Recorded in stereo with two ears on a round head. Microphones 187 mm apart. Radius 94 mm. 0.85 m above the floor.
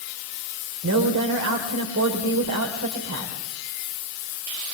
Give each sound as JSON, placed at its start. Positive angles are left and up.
{"t": 0.8, "sound": "a woman speaking", "side_deg": -75, "distance_m": 3.5}